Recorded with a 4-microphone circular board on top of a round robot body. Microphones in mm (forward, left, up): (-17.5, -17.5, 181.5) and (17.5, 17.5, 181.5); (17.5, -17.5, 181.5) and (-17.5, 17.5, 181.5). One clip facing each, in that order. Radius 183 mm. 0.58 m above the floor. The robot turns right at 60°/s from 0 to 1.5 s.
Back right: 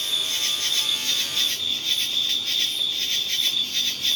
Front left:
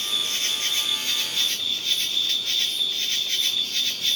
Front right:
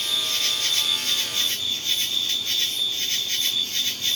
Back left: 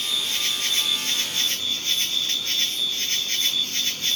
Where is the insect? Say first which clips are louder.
Even, even; 50° left, 2 m; by 4.2 s 140° left, 2 m.